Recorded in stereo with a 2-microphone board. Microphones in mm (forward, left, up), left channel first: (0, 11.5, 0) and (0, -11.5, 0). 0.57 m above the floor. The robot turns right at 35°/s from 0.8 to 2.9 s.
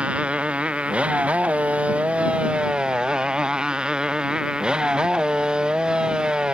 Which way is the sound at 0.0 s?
120° right.